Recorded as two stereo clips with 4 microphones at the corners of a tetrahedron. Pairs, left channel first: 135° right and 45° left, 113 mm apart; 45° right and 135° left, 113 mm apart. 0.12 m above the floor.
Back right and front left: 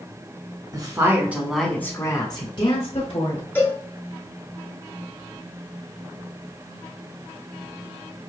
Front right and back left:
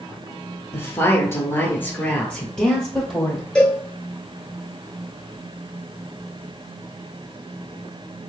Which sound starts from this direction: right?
A cowbell, at 3.5 s.